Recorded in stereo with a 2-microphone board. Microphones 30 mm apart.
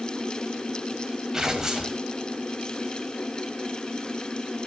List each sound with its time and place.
1.3 s tearing paper: 20° right (ahead or behind), 2 m